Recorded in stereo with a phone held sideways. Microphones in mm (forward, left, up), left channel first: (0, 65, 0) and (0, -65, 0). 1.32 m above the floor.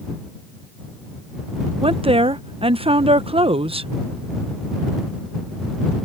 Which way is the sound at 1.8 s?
45° right (ahead or behind).